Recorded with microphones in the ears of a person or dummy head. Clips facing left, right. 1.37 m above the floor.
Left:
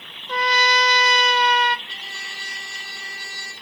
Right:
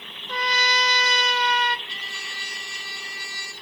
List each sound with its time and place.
0.3 s a trumpet: 60° left (ahead or behind), 0.5 m
1.9 s a trumpet: 85° right, 3 m